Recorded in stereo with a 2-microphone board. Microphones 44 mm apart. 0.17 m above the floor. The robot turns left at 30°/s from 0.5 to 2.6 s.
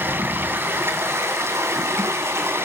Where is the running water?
60° right, 2 m; by 2.6 s 120° right, 2 m.